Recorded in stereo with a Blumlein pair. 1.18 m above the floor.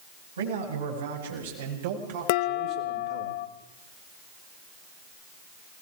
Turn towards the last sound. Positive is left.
turn(degrees=50)